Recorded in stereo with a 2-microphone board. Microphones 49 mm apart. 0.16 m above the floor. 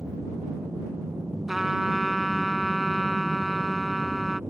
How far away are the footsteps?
No footsteps in this recording.